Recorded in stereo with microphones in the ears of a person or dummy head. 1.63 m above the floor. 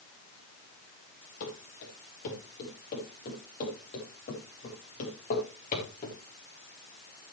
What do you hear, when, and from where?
1.4 s running footsteps: 55° left (ahead or behind), 9.5 m; by 6.2 s 40° left (ahead or behind), 7.5 m